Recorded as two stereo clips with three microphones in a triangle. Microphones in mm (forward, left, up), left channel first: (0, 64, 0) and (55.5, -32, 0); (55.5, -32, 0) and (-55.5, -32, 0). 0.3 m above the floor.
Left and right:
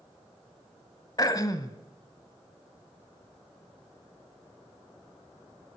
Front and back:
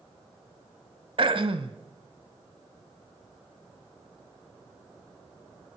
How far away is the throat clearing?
About 0.9 m.